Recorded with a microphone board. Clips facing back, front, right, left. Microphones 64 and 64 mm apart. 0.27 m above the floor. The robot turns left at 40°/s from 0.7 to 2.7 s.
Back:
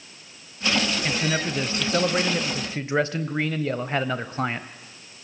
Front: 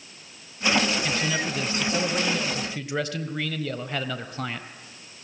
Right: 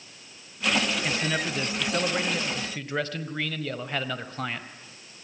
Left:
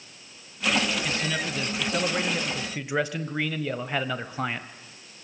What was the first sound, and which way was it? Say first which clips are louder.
A man speaking: back 1 dB, right 1 dB; 135° right.